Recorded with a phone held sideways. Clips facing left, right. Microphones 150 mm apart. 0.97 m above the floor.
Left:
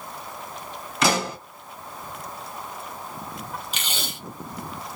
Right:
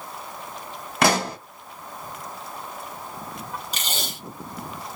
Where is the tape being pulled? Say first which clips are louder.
Right 1 dB; 40° right (ahead or behind), 1.2 m.